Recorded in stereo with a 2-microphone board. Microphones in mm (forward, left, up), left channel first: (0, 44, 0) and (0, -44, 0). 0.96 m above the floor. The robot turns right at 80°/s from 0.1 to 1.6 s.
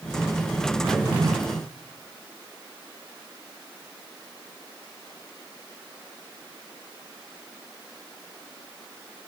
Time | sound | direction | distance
0.8 | a drawer | 85° right | 3 m